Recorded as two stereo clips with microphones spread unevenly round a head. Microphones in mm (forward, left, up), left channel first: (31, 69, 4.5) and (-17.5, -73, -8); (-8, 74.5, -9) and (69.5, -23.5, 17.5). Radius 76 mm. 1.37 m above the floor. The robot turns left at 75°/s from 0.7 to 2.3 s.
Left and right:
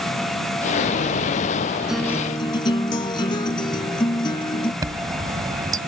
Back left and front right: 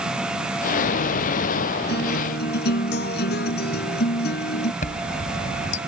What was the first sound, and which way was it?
A guitar, 165° left.